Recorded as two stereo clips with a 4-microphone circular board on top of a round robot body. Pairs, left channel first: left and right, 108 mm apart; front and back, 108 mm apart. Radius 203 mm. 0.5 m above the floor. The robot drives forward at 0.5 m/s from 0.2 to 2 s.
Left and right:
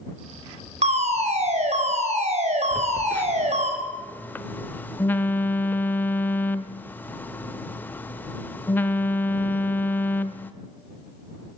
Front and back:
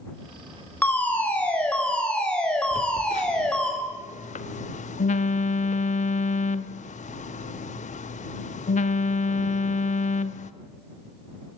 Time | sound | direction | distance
0.8 | a fire alarm | 75° right | 5.5 m
2.7 | a phone buzzing | 15° left | 0.5 m